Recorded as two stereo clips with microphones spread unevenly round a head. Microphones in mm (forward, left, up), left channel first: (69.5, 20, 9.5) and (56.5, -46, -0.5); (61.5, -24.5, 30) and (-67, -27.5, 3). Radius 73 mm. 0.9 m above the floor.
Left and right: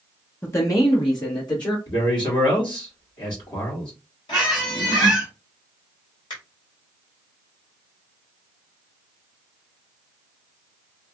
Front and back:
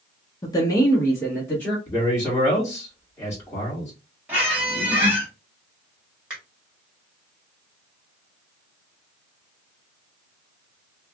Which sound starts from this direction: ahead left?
A woman speaking, at 0.4 s.